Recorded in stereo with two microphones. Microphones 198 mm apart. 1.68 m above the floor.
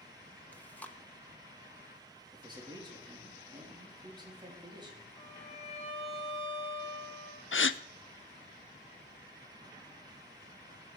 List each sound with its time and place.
0.5 s chewing: 5° left (ahead or behind), 0.9 m
2.3 s a man speaking: 20° right (ahead or behind), 3.5 m
5.2 s a violin: 30° left (ahead or behind), 5.5 m
7.5 s a gasp: 80° left, 0.5 m